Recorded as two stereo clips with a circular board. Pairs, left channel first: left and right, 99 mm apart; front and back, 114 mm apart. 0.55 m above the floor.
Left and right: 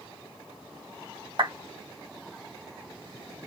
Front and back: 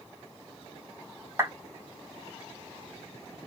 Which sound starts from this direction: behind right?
A clap, at 1.4 s.